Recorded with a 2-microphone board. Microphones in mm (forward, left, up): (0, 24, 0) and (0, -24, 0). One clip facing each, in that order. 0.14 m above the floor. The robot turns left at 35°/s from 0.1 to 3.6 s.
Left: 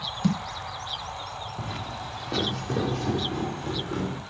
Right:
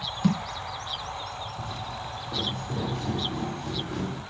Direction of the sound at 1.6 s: 55° left (ahead or behind).